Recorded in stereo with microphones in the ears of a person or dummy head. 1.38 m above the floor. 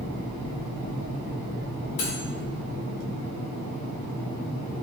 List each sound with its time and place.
2.0 s cutlery clinking: 35° left (ahead or behind), 1.3 m